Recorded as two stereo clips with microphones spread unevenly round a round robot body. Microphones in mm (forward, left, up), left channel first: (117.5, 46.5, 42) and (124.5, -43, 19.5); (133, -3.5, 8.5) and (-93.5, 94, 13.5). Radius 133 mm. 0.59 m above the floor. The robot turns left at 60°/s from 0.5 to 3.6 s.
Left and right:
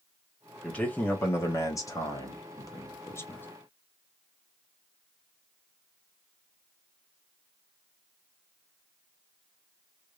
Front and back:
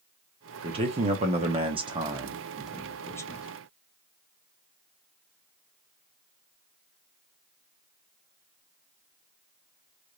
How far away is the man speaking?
About 0.8 m.